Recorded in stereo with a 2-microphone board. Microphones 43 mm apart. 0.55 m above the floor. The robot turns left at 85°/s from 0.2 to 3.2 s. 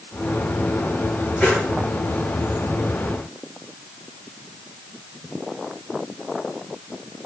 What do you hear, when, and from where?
1.4 s a whoosh: 40° left (ahead or behind), 5.5 m; by 1.7 s 15° left (ahead or behind), 5.5 m